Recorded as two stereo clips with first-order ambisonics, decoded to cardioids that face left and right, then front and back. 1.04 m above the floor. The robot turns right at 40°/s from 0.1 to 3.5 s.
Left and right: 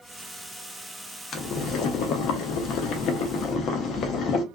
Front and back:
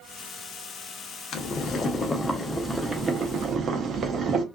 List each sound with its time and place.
1.3 s boiling: 40° left, 0.5 m; by 4.4 s 130° left, 0.5 m